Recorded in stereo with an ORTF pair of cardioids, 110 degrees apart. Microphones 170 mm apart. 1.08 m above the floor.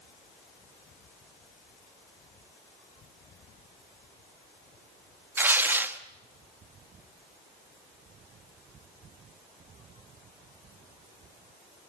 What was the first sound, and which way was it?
Tearing paper, 10° right.